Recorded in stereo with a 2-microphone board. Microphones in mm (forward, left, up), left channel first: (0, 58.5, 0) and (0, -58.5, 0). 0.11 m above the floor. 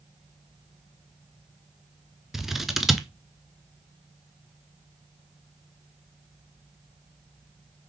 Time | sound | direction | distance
2.3 | scissors | 5° right (ahead or behind) | 0.6 m